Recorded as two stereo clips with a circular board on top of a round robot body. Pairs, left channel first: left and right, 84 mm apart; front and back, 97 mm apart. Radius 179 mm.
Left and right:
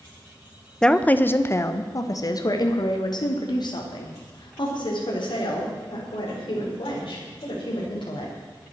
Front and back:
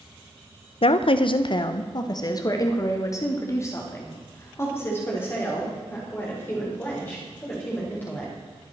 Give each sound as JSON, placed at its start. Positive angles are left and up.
{"t": 0.8, "sound": "a woman speaking", "azimuth_deg": 10, "distance_m": 0.9}